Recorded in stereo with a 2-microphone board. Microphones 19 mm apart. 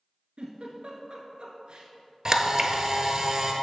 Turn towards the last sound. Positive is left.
turn(degrees=-40)  # may be behind; listen again after turning